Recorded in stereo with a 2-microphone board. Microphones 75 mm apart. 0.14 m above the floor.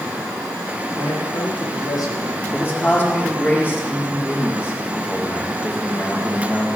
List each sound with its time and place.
0.9 s a man speaking: 65° left (ahead or behind), 6.5 m; by 2.4 s 60° left (ahead or behind), 5.5 m
2.5 s a man speaking: 30° left (ahead or behind), 6 m